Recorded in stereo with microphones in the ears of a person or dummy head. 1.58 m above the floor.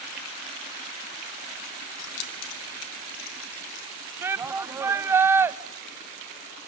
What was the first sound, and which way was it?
Keys jangling, 55° left (ahead or behind).